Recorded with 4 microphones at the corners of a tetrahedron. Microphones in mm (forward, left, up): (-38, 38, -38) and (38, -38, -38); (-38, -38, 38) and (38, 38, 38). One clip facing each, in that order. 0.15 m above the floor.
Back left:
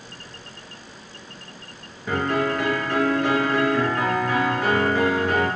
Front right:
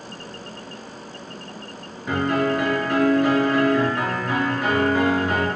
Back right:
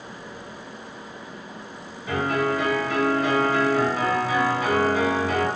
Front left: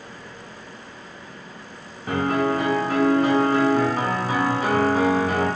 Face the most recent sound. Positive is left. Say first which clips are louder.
# front right 2 dB, front left 2 dB
turn(degrees=35)